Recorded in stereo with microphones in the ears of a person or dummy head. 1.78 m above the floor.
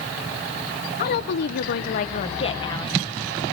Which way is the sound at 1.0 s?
55° left (ahead or behind).